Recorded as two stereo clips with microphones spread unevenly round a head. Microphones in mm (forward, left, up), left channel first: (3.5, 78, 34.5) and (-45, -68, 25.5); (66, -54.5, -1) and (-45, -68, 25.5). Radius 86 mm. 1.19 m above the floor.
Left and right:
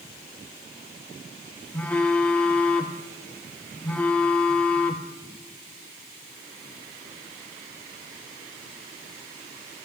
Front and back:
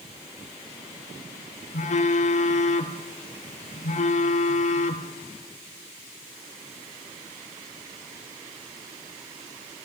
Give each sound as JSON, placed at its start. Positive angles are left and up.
{"t": 1.7, "sound": "a phone buzzing", "azimuth_deg": -10, "distance_m": 1.6}